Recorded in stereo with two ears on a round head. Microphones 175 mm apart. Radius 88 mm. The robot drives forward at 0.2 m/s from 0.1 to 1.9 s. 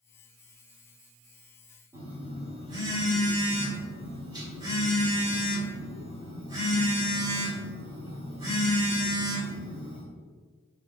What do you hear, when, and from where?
1.9 s a phone buzzing: 20° right (ahead or behind), 1.2 m